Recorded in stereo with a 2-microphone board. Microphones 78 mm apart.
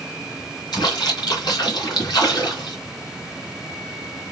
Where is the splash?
70° left (ahead or behind), 3 m.